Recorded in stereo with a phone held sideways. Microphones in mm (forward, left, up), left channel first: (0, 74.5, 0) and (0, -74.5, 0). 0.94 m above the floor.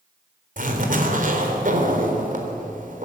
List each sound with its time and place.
0.6 s a zipper: 60° right (ahead or behind), 4 m